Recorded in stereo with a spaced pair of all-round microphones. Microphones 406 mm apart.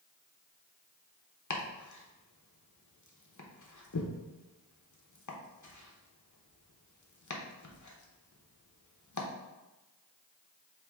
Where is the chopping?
45° left (ahead or behind), 0.6 m.